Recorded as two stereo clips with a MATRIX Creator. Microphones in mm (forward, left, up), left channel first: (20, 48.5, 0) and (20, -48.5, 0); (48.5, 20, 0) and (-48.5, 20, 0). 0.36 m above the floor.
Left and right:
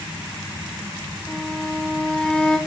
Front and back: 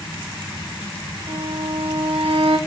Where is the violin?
170° left, 0.9 m.